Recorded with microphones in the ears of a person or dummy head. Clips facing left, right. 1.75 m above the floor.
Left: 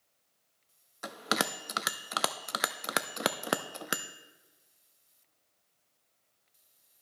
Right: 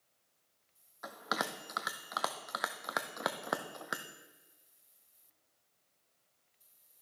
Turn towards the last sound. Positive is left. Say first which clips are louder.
# left 5 dB
turn(degrees=40)  # may be behind; listen again after turning